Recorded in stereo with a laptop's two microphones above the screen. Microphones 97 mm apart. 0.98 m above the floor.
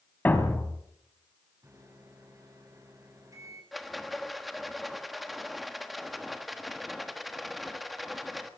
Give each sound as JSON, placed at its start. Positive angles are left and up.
{"t": 0.2, "sound": "a thud", "side_deg": 20, "distance_m": 1.6}
{"t": 1.6, "sound": "a microwave", "side_deg": -35, "distance_m": 6.5}
{"t": 3.7, "sound": "a rattle", "side_deg": 0, "distance_m": 1.3}